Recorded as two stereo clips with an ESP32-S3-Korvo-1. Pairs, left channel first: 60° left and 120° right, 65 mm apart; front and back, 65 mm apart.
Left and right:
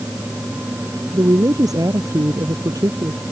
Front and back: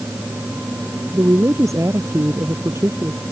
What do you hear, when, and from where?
1.1 s a woman speaking: 140° right